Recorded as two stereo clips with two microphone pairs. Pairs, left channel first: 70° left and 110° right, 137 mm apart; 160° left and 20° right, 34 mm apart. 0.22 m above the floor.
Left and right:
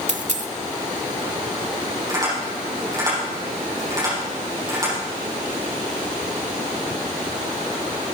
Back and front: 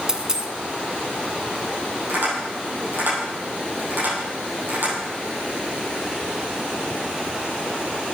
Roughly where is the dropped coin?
Right.